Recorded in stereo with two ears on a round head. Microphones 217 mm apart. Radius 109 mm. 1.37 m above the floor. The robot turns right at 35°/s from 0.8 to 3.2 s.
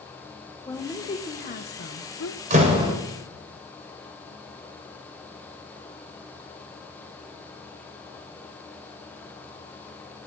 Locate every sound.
0.7 s a woman speaking: 10° left, 1.0 m; by 2.4 s 70° left, 1.0 m
2.5 s a door slam: 30° right (ahead or behind), 3.5 m; by 2.9 s 15° right (ahead or behind), 3.5 m